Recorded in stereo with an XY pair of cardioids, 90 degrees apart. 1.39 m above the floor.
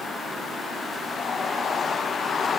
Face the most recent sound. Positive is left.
No sound to turn to.